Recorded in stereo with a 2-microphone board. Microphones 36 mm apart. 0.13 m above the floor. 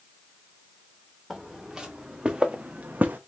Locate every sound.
1.3 s footsteps: 10° right (ahead or behind), 1.4 m; by 3.2 s 65° right (ahead or behind), 0.5 m